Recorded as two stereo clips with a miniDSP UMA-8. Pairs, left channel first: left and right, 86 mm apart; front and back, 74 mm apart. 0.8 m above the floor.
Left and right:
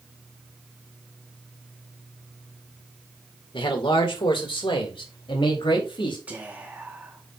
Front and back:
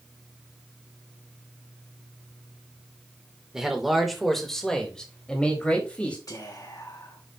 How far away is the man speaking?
About 2.5 m.